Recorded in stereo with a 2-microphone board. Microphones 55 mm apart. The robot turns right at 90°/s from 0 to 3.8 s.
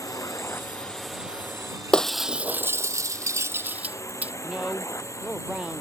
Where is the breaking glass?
15° left (ahead or behind); by 4.3 s 30° right (ahead or behind).